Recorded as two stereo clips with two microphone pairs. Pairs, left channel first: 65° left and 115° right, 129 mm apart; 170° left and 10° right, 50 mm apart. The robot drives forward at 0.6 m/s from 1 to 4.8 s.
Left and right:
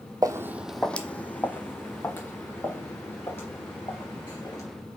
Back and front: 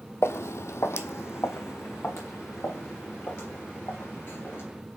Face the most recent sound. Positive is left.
turn(degrees=135)